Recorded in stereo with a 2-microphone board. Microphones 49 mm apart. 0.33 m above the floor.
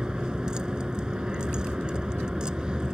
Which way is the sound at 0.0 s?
20° right (ahead or behind).